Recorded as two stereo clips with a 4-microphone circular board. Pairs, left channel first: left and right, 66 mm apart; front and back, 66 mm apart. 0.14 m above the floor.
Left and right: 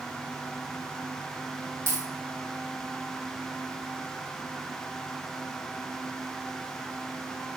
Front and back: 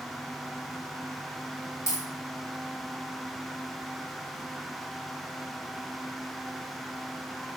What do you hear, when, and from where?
1.9 s a dropped coin: 40° right, 1.8 m